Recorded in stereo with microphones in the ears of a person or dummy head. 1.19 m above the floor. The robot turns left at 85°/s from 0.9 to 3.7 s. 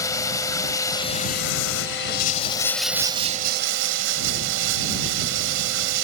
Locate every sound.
0.0 s running water: 160° left; by 6.0 s 75° right